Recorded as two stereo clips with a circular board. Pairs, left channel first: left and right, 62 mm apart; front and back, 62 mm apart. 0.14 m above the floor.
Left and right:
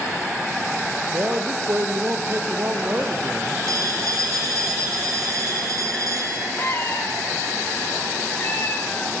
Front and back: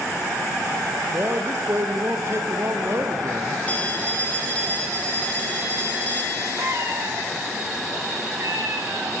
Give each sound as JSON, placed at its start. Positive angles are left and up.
{"t": 1.1, "sound": "a man speaking", "azimuth_deg": -140, "distance_m": 2.5}
{"t": 3.7, "sound": "a phone ringing", "azimuth_deg": -65, "distance_m": 5.0}
{"t": 6.6, "sound": "a cat meowing", "azimuth_deg": 145, "distance_m": 5.0}